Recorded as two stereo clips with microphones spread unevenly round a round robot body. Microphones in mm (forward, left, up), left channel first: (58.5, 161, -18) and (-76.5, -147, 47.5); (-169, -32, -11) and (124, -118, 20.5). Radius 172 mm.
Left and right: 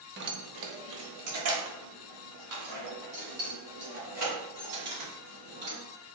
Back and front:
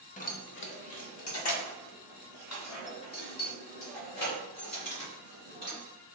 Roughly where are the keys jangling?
Behind.